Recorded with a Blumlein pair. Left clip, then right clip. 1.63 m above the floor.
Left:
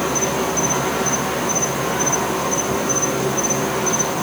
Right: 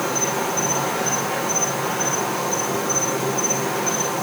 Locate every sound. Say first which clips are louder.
0.0 s an insect: left 2 dB; 20° left, 3 m